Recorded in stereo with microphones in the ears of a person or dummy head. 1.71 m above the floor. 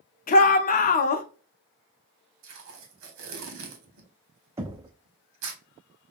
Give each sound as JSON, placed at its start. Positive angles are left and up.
{"t": 0.3, "sound": "a shout", "side_deg": 40, "distance_m": 0.7}
{"t": 2.4, "sound": "tape being pulled", "side_deg": -75, "distance_m": 1.4}
{"t": 4.6, "sound": "knocking", "side_deg": -15, "distance_m": 0.5}